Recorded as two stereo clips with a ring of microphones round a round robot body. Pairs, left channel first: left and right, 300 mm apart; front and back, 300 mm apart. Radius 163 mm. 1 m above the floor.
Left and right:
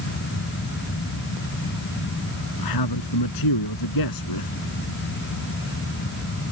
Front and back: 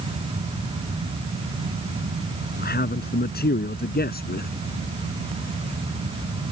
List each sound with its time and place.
2.6 s a man speaking: 60° left